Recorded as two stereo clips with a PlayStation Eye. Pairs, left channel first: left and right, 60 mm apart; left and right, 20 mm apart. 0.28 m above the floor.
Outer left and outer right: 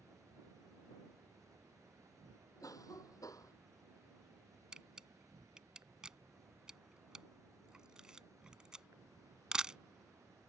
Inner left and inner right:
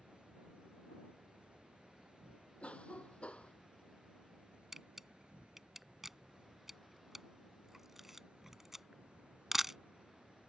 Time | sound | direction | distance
0.0 | an insect | 65° right (ahead or behind) | ?
2.6 | a cough | 70° left (ahead or behind) | ?
4.7 | a camera shutter | 10° right (ahead or behind) | ?